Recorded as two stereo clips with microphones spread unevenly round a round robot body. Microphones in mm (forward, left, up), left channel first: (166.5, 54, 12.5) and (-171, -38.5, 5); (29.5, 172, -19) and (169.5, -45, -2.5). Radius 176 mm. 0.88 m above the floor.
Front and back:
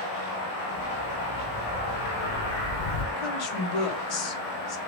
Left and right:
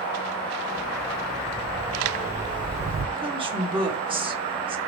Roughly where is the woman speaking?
Ahead.